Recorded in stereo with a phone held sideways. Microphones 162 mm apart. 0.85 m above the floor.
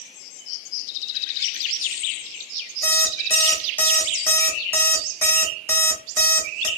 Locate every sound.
2.8 s an alarm clock: 10° left (ahead or behind), 0.7 m